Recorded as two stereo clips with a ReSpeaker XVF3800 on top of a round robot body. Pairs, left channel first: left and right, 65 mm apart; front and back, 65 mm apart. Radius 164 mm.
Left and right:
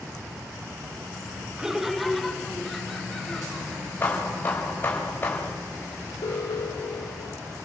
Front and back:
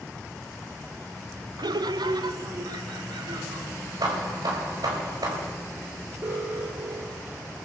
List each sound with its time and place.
1.6 s laughter: 170° right, 0.7 m; by 3.9 s 170° left, 4 m
4.0 s hammering: 155° left, 4 m
6.2 s an alarm: 125° left, 3.5 m